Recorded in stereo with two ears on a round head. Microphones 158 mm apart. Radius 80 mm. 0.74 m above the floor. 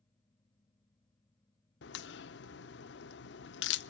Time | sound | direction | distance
1.8 | a crack | 65° left (ahead or behind) | 1.0 m